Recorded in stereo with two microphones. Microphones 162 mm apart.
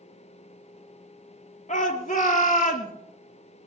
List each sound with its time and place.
1.7 s a shout: 50° left (ahead or behind), 3.5 m; by 2.9 s 60° left (ahead or behind), 3 m